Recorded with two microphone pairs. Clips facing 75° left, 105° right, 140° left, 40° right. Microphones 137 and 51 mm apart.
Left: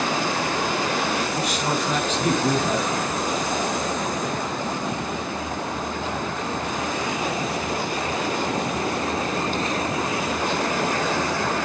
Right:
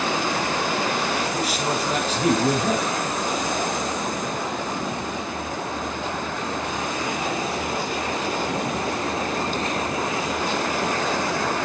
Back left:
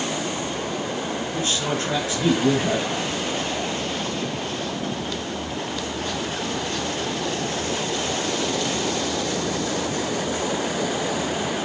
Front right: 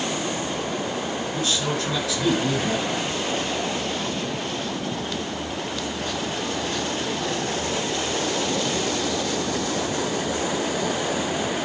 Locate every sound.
1.3 s a man speaking: 160° right, 6 m